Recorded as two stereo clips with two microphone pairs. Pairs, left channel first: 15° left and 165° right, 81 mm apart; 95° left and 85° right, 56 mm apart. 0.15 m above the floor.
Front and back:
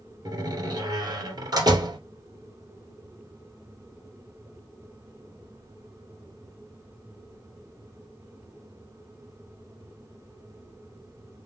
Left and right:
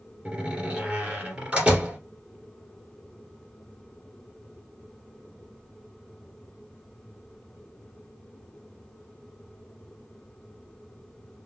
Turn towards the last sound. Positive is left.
turn(degrees=-155)